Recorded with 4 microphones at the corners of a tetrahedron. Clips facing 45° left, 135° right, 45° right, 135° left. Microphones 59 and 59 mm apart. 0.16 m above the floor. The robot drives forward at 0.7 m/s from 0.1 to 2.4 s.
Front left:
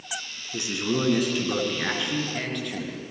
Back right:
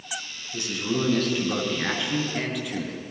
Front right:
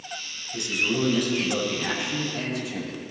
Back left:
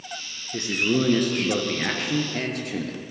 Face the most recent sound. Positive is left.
turn(degrees=140)